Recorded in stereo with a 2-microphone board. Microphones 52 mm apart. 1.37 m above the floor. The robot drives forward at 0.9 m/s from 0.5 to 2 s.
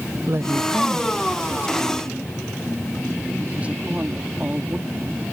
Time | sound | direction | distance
0.3 | a woman speaking | 50° right (ahead or behind) | ?